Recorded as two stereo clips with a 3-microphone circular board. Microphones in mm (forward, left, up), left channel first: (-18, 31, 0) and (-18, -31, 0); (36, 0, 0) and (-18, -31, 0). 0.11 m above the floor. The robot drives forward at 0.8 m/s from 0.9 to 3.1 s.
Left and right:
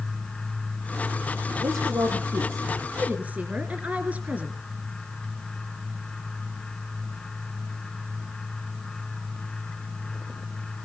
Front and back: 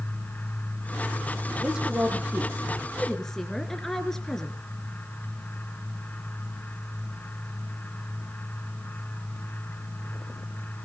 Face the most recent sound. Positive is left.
turn(degrees=-50)